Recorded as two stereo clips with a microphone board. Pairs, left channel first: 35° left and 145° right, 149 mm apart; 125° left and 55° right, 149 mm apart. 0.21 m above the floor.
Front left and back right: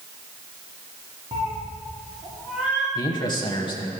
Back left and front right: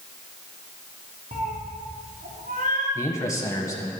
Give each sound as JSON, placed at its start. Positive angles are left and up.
{"t": 1.3, "sound": "a cat meowing", "azimuth_deg": -90, "distance_m": 4.0}
{"t": 3.0, "sound": "a man speaking", "azimuth_deg": 70, "distance_m": 1.2}